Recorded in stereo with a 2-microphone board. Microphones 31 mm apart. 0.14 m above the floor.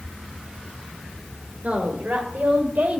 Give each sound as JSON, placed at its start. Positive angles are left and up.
{"t": 1.6, "sound": "a woman speaking", "side_deg": -55, "distance_m": 2.5}